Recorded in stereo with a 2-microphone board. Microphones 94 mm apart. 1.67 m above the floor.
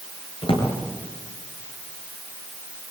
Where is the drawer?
65° left (ahead or behind), 6 m.